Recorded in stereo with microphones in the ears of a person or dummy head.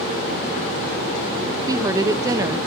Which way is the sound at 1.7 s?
25° right (ahead or behind).